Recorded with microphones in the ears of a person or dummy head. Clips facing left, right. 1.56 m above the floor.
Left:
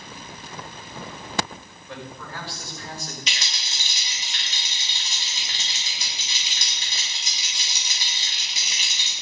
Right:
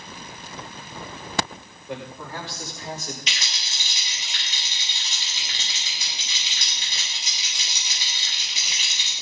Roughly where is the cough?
No cough in this recording.